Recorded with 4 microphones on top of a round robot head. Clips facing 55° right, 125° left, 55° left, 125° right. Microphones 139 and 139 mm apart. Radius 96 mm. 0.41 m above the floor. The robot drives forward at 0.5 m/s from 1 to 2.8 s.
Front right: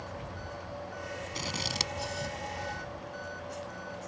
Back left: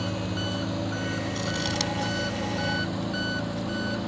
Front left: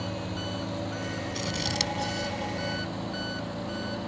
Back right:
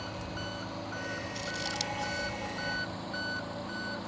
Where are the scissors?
25° left; by 2.4 s 30° left.